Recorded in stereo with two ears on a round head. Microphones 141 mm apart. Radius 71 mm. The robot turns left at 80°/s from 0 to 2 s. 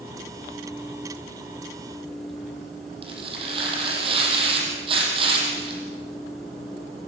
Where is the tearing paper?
35° right (ahead or behind), 6.5 m.